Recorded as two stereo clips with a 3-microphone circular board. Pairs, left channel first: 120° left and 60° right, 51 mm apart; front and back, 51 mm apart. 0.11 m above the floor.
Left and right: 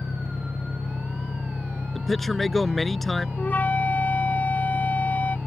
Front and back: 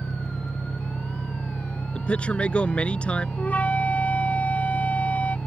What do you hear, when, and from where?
0.0 s an engine running: 80° left
1.9 s a man speaking: 35° left
3.4 s a flute: 60° left